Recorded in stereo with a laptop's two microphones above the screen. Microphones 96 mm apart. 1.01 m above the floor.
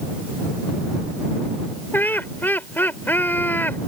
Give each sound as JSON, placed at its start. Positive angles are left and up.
{"t": 1.9, "sound": "laughter", "side_deg": 20}